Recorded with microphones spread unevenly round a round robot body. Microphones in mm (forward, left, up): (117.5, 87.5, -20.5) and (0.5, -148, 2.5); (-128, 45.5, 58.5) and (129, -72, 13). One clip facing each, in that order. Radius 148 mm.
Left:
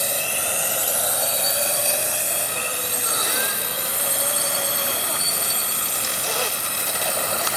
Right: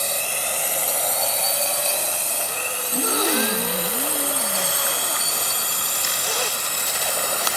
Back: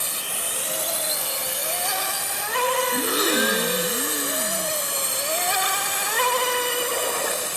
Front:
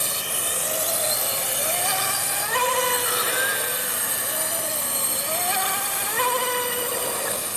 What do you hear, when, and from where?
0.0 s a drone: 15° right; by 7.6 s 5° right
2.9 s a gasp: 155° right